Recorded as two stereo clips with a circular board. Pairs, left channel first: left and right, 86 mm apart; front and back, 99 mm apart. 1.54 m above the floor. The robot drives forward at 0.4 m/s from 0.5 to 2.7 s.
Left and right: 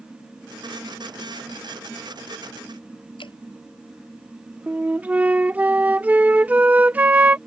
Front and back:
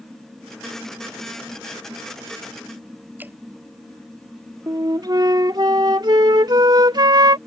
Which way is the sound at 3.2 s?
110° left.